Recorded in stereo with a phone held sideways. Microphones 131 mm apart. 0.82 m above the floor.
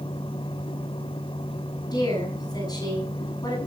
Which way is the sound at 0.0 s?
40° left (ahead or behind).